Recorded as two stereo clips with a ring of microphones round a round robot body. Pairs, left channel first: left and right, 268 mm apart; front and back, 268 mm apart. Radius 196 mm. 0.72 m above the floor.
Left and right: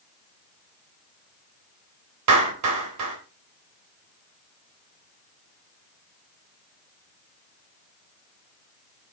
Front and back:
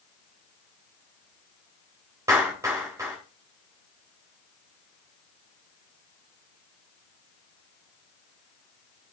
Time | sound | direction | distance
2.3 | a clap | 100° right | 3.5 m